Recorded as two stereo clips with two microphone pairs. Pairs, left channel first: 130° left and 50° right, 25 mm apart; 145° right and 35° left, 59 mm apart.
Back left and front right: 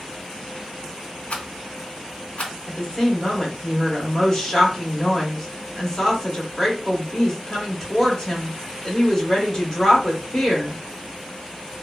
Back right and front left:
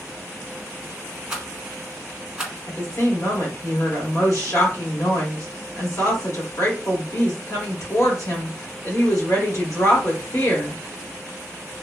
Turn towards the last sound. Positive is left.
turn(degrees=-165)